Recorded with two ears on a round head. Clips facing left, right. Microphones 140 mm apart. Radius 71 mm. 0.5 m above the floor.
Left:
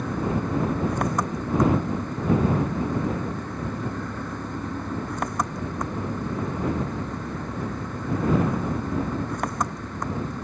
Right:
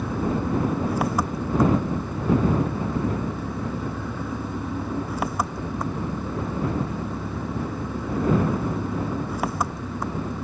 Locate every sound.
0.0 s an engine running: 5° right (ahead or behind)